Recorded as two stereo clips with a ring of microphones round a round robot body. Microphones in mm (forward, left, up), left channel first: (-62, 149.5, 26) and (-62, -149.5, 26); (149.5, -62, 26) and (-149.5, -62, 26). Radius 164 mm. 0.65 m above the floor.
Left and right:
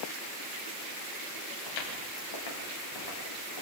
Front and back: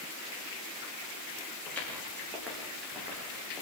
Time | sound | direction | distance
1.7 | footsteps | 85° left | 8.5 m